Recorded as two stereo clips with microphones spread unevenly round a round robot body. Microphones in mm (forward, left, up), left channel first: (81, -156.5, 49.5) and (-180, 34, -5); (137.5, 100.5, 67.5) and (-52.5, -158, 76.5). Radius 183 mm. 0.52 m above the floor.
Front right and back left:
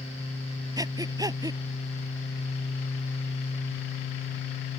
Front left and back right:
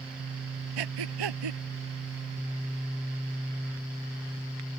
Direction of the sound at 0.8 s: 135° right.